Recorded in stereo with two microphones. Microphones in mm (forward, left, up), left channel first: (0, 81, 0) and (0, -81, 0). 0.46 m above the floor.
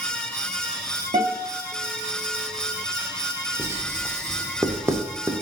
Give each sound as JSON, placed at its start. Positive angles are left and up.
{"t": 1.1, "sound": "a guitar", "side_deg": -45, "distance_m": 1.4}
{"t": 3.6, "sound": "writing", "side_deg": -15, "distance_m": 0.6}